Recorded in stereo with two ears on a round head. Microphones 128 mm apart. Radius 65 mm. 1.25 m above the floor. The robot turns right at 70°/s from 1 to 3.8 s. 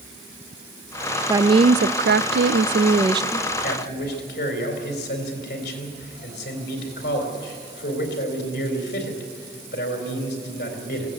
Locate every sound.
1.3 s a woman speaking: 160° right, 0.5 m; by 3.5 s 10° right, 0.5 m
3.6 s a man speaking: 75° left (ahead or behind), 4 m; by 11.1 s 90° left, 4 m